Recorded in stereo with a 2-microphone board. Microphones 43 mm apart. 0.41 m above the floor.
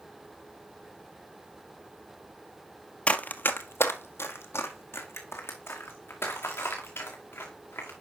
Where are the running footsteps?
30° left (ahead or behind), 0.7 m; by 7.9 s 70° left (ahead or behind), 4 m.